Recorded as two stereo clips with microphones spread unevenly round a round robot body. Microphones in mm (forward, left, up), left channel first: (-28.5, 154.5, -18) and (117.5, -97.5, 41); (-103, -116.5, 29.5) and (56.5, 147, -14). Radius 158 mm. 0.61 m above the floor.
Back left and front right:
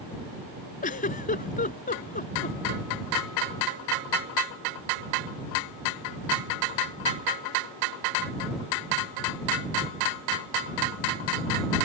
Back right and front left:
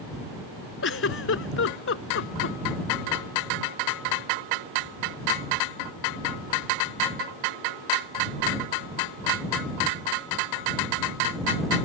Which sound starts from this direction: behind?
A giggle, at 0.8 s.